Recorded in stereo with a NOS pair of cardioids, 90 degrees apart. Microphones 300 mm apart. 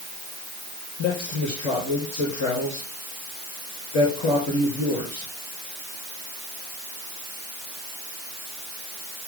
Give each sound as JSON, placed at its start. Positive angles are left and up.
{"t": 1.0, "sound": "a man speaking", "azimuth_deg": 60, "distance_m": 5.0}